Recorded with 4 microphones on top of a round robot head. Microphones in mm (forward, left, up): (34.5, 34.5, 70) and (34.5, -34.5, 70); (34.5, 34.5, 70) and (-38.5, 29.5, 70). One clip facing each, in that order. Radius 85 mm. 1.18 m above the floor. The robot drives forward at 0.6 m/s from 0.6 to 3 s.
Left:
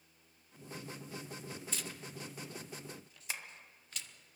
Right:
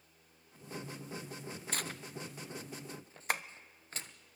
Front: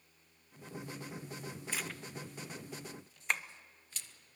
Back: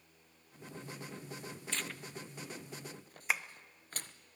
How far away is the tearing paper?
About 0.7 m.